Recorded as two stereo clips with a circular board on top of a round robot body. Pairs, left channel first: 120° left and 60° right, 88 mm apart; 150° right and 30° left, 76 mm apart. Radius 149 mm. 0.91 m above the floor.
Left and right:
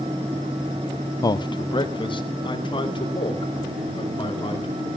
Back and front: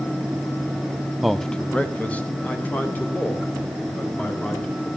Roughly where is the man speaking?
Behind left.